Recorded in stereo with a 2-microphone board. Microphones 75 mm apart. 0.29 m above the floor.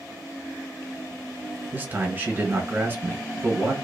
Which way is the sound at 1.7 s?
30° right (ahead or behind).